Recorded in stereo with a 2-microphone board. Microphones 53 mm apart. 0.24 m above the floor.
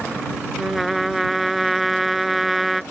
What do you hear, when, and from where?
0.6 s a trumpet: centre (ahead or behind)